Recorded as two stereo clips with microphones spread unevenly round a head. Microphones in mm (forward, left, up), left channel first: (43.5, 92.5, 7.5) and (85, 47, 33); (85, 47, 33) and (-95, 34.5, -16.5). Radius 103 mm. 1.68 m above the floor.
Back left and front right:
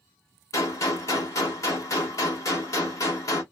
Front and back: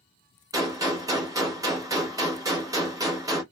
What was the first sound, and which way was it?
A gunshot, 105° left.